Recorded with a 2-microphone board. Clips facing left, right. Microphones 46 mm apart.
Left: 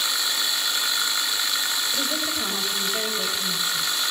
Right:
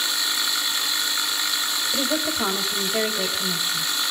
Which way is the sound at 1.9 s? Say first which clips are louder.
Right 3 dB; 40° right (ahead or behind).